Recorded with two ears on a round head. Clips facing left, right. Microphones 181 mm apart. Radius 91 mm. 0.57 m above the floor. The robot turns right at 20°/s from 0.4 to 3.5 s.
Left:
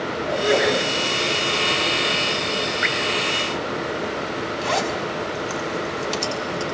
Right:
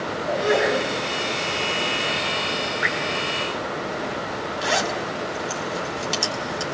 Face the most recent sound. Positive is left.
turn(degrees=-10)  # may be behind; listen again after turning